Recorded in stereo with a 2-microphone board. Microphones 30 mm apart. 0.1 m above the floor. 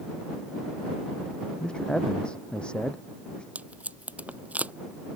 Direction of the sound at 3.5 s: 60° right (ahead or behind).